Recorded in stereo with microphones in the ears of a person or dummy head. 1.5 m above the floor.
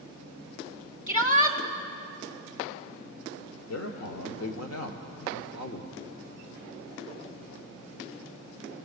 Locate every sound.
1.1 s a shout: 35° left (ahead or behind), 2.5 m
3.7 s a man speaking: 70° left (ahead or behind), 1.3 m